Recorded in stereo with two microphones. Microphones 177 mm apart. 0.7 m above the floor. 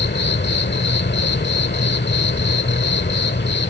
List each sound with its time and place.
0.0 s an insect: 80° left